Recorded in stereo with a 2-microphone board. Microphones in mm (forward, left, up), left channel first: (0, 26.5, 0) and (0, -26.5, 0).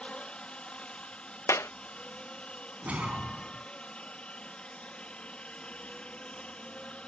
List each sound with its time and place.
0.0 s a helicopter: 20° left (ahead or behind)
1.5 s a clap: 60° left (ahead or behind)
2.8 s a whoosh: 25° right (ahead or behind)